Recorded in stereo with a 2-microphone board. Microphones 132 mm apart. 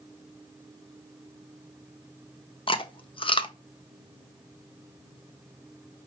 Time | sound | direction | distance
2.7 | chewing | 40° left (ahead or behind) | 0.5 m